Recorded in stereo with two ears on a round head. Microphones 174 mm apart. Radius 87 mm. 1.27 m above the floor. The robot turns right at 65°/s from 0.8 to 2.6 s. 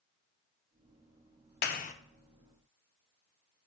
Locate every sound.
1.6 s a clap: 55° left (ahead or behind), 0.7 m; by 1.9 s 35° left (ahead or behind), 0.7 m